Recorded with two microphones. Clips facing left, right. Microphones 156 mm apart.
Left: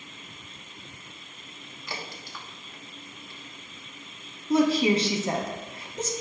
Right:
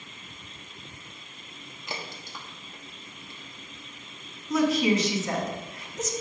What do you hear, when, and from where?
1.9 s a crack: 20° right (ahead or behind), 1.1 m
4.5 s a woman speaking: 30° left (ahead or behind), 1.1 m